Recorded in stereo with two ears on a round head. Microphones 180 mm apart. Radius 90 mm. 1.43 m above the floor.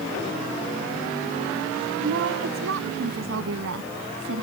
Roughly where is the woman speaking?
Right.